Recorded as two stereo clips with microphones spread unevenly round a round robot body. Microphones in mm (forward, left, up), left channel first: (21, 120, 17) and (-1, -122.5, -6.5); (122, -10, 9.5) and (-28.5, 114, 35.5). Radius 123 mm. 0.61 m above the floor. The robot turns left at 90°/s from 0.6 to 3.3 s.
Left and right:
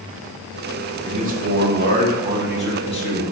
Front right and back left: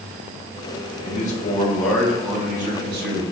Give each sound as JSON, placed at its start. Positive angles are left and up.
{"t": 1.0, "sound": "a man speaking", "azimuth_deg": -40, "distance_m": 0.8}